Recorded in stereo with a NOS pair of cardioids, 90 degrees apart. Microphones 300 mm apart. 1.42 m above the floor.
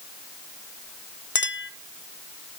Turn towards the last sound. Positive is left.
turn(degrees=40)